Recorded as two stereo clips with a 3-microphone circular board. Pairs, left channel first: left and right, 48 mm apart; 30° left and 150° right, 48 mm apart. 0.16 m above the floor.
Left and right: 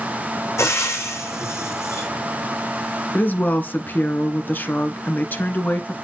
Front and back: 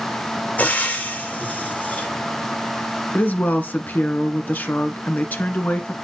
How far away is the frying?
About 2.5 m.